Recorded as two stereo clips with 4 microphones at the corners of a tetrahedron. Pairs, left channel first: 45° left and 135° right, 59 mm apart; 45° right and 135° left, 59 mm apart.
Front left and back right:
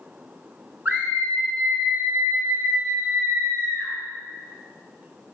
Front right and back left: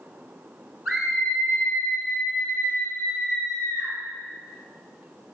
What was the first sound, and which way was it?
A scream, 150° right.